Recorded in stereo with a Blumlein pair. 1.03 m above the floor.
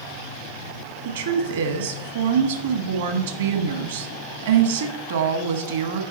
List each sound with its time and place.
1.1 s a woman speaking: 60° right, 1.2 m